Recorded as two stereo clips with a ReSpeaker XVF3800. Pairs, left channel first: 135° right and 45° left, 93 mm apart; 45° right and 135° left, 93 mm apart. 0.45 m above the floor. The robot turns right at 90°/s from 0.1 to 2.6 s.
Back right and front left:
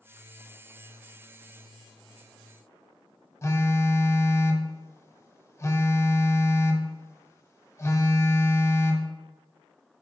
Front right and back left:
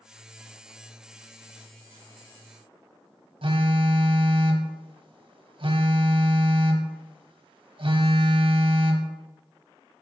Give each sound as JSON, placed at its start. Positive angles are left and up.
{"t": 3.4, "sound": "a phone buzzing", "azimuth_deg": 165, "distance_m": 0.5}